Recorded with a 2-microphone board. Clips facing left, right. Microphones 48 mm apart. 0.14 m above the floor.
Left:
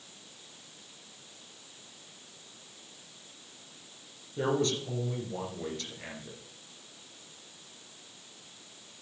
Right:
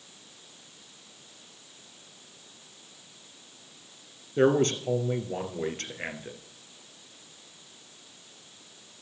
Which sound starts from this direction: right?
A man speaking, at 4.4 s.